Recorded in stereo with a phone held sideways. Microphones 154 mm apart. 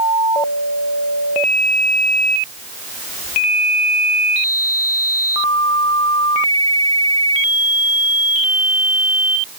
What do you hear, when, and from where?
Only background noise.